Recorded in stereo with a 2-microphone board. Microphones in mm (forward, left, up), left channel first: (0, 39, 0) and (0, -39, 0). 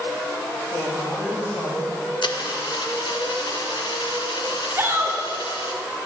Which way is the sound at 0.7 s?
60° left (ahead or behind).